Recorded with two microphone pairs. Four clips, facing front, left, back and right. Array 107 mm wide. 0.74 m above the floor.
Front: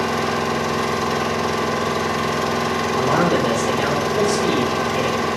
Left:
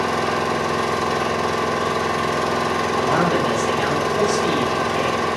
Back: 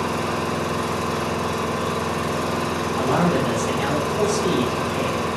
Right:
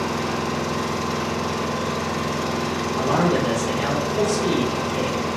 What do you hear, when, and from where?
0.0 s an engine running: 40° left, 1.4 m
3.0 s a man speaking: 10° right, 3 m